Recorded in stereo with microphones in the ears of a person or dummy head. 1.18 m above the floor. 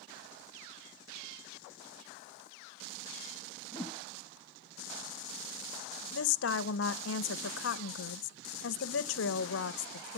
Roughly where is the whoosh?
Centre.